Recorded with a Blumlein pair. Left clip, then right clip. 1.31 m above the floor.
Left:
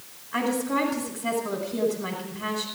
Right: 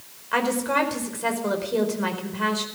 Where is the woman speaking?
40° right, 5 m.